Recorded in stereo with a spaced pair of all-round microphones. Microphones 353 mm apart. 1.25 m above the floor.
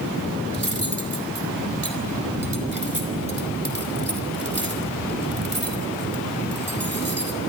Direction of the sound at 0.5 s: 65° right (ahead or behind).